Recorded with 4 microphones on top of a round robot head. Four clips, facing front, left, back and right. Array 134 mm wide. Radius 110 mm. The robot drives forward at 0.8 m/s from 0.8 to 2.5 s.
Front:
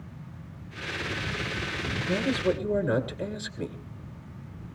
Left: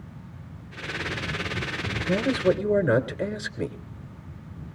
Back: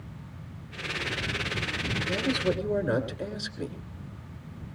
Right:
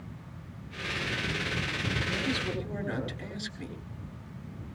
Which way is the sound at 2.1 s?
80° left.